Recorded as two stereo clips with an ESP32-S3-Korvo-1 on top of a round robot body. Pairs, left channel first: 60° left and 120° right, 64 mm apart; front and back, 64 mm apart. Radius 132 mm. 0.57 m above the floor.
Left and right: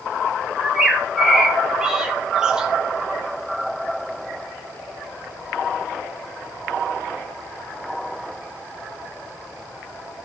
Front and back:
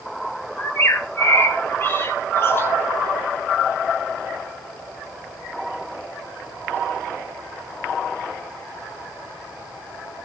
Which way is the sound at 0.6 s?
45° right.